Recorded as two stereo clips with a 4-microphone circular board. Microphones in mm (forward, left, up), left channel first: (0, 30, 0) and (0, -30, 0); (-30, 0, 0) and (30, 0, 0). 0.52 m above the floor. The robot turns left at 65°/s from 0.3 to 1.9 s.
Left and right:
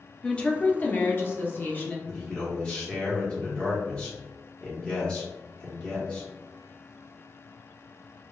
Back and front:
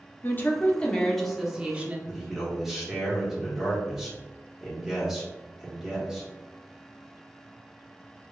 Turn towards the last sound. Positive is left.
turn(degrees=65)